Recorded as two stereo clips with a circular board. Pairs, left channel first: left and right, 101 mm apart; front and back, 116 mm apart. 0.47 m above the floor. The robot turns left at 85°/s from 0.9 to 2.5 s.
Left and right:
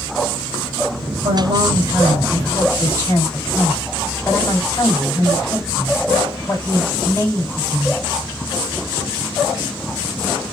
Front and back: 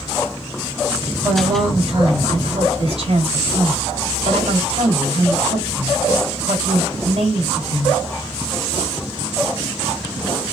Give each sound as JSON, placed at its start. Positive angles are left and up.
{"t": 1.2, "sound": "a woman speaking", "azimuth_deg": -100, "distance_m": 3.0}